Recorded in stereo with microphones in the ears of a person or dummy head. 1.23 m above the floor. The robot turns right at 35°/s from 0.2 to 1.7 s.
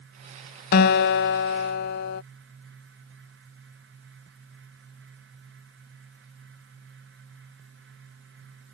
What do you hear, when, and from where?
0.7 s a guitar: 70° left; by 2.2 s 100° left